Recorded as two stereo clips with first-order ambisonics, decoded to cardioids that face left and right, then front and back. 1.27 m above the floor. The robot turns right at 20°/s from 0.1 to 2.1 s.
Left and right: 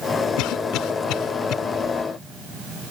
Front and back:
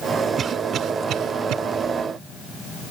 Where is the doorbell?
I don't hear a doorbell.